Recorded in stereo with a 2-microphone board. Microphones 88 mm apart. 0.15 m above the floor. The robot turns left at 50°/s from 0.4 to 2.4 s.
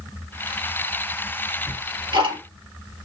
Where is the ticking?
60° right (ahead or behind), 2 m; by 2.4 s 65° right (ahead or behind), 2 m.